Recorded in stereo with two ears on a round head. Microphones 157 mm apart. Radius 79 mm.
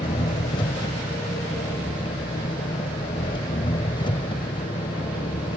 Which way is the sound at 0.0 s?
25° left (ahead or behind).